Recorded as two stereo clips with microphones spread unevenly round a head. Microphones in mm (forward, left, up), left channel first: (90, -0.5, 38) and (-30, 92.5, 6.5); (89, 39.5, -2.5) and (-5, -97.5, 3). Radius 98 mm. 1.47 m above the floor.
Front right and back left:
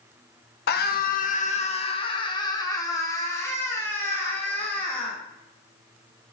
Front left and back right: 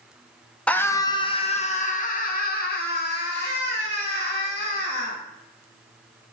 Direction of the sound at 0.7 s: 25° right.